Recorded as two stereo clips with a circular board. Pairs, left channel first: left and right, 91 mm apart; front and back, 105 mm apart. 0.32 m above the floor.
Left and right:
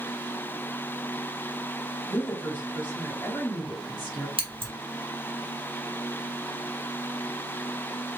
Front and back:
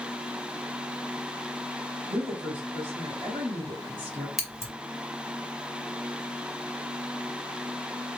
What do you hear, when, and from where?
2.1 s a woman speaking: 165° left, 2 m
4.4 s scissors: 90° right, 1.4 m